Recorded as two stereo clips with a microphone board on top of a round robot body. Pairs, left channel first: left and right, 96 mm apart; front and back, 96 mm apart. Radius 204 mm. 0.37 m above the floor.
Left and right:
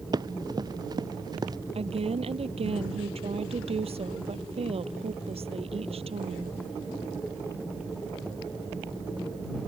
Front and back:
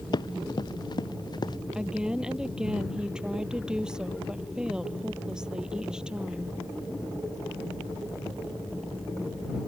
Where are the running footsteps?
45° right.